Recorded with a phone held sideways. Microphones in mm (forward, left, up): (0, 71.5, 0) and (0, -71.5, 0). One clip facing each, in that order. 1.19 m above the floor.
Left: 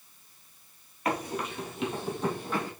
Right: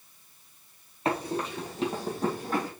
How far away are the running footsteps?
About 1.8 m.